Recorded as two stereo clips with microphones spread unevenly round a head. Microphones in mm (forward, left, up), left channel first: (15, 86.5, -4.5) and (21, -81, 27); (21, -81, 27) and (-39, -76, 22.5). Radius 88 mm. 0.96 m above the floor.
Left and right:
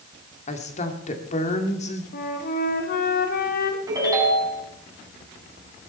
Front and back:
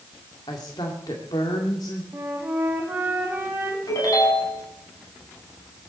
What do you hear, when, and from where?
0.5 s a woman speaking: 45° left, 2.0 m
2.1 s a flute: 110° left, 1.6 m
3.9 s a ringtone: 20° right, 4.5 m